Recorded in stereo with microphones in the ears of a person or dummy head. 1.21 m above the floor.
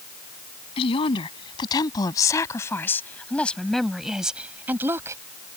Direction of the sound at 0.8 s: 30° left (ahead or behind).